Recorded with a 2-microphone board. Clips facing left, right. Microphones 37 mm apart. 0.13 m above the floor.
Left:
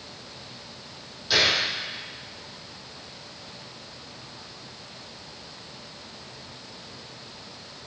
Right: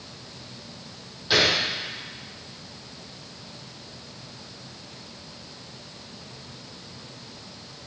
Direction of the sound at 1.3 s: 15° right (ahead or behind).